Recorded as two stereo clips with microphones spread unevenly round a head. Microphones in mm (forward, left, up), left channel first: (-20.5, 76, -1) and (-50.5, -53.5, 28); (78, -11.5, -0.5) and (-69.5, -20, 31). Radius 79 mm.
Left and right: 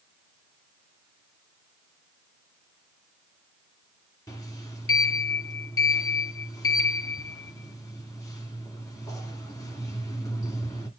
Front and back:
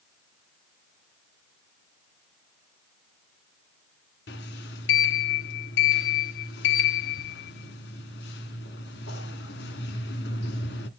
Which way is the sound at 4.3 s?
Straight ahead.